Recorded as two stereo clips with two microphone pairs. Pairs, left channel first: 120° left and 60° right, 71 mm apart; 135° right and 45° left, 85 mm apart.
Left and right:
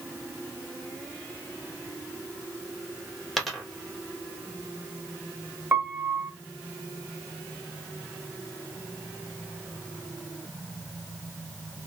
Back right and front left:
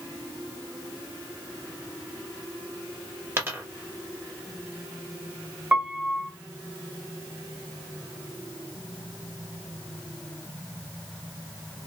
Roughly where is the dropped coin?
Ahead left.